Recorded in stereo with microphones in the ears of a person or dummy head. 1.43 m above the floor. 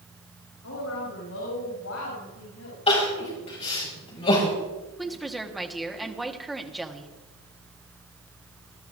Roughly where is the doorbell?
I don't hear a doorbell.